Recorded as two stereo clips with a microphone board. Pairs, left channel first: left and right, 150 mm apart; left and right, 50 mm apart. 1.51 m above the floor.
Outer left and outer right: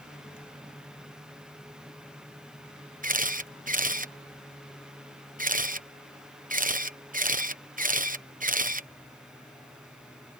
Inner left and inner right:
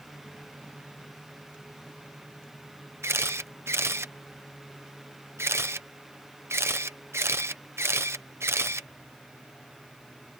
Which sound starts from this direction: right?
A camera shutter, at 3.0 s.